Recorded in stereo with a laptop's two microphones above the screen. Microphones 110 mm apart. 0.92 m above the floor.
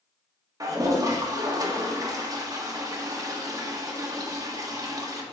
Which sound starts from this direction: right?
A toilet flushing, at 0.6 s.